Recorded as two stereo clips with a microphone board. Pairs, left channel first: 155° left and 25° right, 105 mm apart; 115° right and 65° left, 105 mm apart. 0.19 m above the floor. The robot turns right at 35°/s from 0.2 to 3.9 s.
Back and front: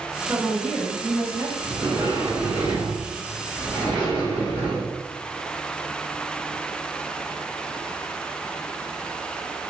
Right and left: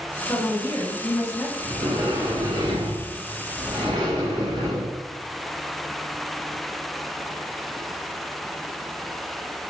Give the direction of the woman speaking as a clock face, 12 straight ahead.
3 o'clock.